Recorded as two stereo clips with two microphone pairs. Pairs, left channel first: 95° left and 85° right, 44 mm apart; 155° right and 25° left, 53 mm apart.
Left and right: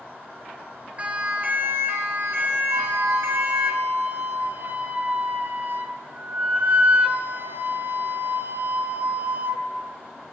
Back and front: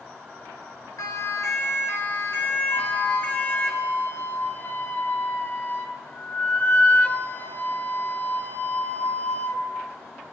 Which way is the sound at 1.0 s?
145° right.